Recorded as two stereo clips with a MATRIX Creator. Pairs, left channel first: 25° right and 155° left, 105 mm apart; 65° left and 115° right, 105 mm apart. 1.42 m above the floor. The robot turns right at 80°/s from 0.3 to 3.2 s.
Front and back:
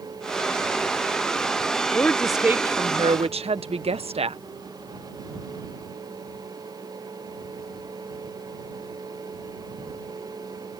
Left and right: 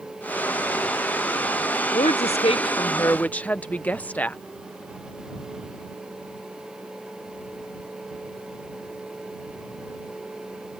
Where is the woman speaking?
40° left; by 4.4 s 140° left.